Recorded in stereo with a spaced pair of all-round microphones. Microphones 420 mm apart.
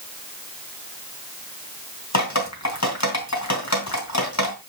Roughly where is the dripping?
Left.